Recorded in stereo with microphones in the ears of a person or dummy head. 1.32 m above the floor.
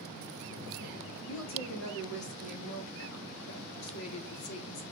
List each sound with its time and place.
1.3 s a woman speaking: 75° left (ahead or behind), 2.5 m; by 4.8 s 70° left (ahead or behind), 1.1 m